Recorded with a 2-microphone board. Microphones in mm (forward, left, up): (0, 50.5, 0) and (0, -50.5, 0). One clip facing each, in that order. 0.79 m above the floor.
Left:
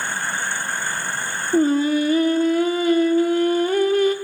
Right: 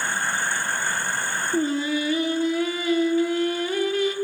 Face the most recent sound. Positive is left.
turn(degrees=45)  # may be behind; listen again after turning